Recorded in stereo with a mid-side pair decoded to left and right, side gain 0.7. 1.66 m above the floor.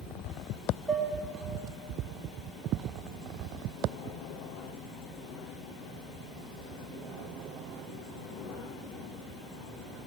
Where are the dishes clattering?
10° right, 2.5 m.